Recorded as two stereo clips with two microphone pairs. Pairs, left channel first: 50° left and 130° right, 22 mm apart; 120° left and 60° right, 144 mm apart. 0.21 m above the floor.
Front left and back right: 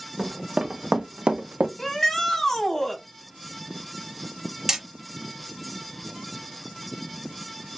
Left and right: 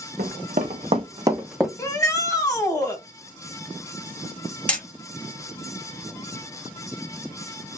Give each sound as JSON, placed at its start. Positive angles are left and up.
{"t": 0.2, "sound": "running footsteps", "azimuth_deg": -70, "distance_m": 1.0}
{"t": 1.8, "sound": "a shout", "azimuth_deg": 90, "distance_m": 1.0}
{"t": 4.7, "sound": "hammering", "azimuth_deg": -170, "distance_m": 1.0}